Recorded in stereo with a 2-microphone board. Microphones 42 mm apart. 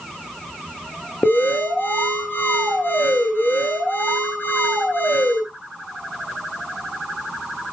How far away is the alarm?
About 2.5 m.